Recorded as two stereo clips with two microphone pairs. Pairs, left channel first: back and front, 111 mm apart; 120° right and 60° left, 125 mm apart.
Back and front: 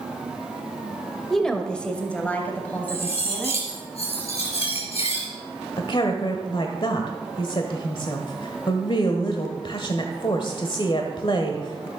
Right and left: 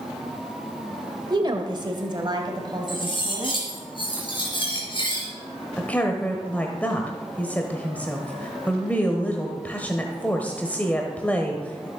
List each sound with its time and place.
1.3 s a woman speaking: 90° left, 1.1 m; by 3.6 s 110° left, 2.5 m
2.9 s cutlery clinking: 165° right, 5 m
5.8 s a woman speaking: 165° left, 1.3 m